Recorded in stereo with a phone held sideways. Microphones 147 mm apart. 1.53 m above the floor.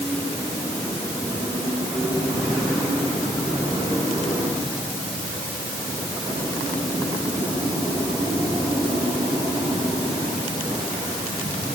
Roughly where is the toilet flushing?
I don't hear a toilet flushing.